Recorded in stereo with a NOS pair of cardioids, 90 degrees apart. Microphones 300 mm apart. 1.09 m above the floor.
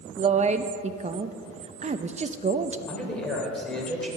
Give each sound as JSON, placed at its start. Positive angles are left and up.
{"t": 0.2, "sound": "a woman speaking", "azimuth_deg": -25, "distance_m": 0.8}
{"t": 2.9, "sound": "a man speaking", "azimuth_deg": 0, "distance_m": 3.5}